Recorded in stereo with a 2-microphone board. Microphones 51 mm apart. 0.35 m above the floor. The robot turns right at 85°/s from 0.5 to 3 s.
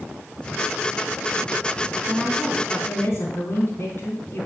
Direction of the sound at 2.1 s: 25° right.